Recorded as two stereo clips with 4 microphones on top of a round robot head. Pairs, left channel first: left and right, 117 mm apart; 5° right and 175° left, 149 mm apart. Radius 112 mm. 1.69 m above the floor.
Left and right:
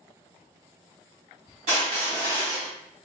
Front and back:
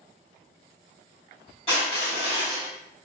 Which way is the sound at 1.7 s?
65° right.